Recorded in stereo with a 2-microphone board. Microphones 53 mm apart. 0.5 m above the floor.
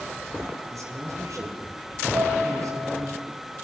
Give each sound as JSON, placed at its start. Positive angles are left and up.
{"t": 0.7, "sound": "a man speaking", "side_deg": -75, "distance_m": 5.0}
{"t": 2.1, "sound": "a piano", "side_deg": -80, "distance_m": 8.0}